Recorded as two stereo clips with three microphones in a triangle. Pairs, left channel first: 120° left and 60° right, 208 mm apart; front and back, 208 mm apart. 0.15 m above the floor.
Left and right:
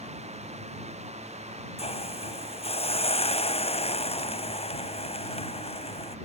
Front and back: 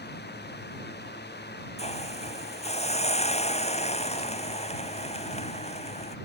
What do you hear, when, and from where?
1.8 s a hiss: 60° left